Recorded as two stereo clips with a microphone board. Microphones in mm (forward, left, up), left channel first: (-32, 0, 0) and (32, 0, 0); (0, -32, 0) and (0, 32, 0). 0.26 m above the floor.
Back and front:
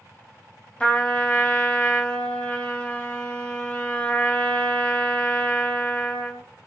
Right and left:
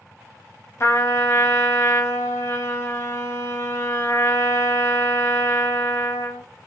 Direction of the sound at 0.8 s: 115° right.